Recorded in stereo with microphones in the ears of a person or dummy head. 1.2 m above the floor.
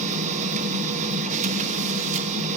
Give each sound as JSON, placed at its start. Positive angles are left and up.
{"t": 0.0, "sound": "a machine running", "side_deg": -40, "distance_m": 1.0}